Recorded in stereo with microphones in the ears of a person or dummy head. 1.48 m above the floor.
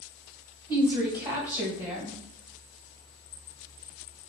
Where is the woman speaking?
10° right (ahead or behind), 1.0 m.